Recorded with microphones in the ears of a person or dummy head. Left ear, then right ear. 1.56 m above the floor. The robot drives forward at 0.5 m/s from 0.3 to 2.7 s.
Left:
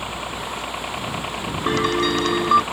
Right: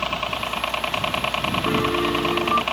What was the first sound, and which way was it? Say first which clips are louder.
A helicopter: right 4 dB; 45° right (ahead or behind).